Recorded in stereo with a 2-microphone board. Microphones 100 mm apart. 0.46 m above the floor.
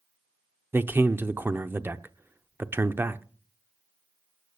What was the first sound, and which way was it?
A man speaking, 20° right (ahead or behind).